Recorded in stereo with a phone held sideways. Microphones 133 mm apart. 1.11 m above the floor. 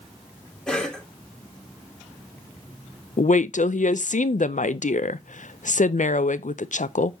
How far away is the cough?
About 2.5 m.